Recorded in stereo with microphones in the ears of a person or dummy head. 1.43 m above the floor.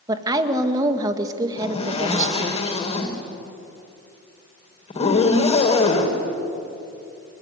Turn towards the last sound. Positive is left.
turn(degrees=35)  # may be behind; listen again after turning